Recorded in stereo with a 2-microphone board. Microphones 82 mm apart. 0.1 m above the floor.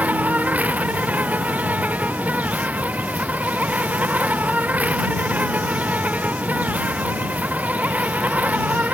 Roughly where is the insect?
Centre.